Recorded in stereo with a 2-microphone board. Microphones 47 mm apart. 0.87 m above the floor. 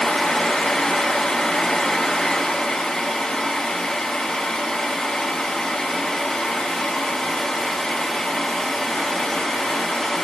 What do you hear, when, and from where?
Only background noise.